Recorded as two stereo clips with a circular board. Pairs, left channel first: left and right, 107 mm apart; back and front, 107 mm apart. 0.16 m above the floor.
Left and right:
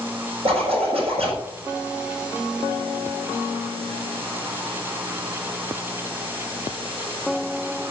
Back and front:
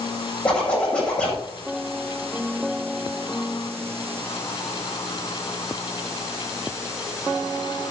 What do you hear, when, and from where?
0.5 s a zipper: 100° right, 7.5 m